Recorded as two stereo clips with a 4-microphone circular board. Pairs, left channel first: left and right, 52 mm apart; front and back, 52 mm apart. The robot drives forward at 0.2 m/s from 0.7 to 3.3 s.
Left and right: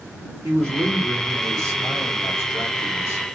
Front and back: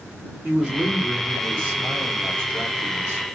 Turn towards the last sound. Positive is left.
turn(degrees=-130)